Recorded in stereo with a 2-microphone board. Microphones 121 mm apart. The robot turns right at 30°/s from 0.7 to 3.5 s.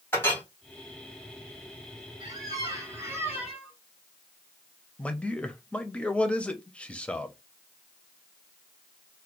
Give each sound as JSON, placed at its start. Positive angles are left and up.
{"t": 0.1, "sound": "a clink", "side_deg": 20, "distance_m": 1.6}
{"t": 2.2, "sound": "a squeak", "azimuth_deg": -65, "distance_m": 1.3}
{"t": 5.0, "sound": "a man speaking", "side_deg": 10, "distance_m": 0.6}